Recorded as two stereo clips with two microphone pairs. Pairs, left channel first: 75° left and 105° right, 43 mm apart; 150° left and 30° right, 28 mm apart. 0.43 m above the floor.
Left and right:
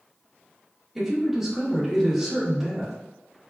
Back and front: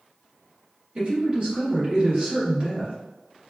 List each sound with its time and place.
0.9 s a woman speaking: 25° right, 1.4 m